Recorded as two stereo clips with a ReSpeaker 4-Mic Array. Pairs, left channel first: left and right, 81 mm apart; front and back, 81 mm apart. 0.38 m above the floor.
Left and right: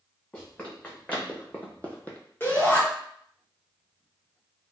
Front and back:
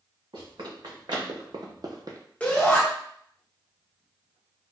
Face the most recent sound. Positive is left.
turn(degrees=60)